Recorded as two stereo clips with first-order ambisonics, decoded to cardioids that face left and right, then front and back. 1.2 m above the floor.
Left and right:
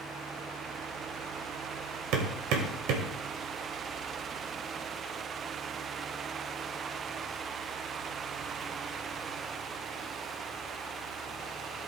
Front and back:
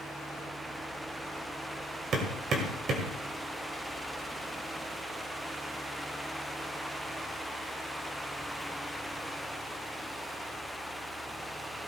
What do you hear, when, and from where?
2.1 s hammering: 120° right, 2 m